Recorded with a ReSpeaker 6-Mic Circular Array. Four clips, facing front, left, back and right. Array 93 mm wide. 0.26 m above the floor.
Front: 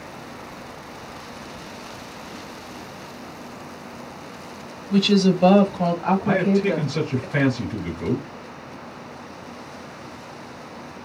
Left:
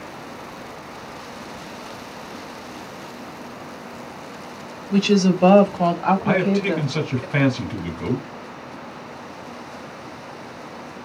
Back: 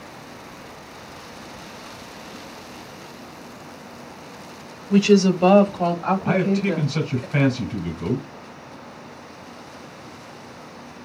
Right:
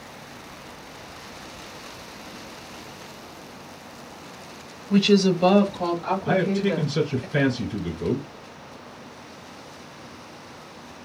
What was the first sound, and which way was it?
A woman speaking, straight behind.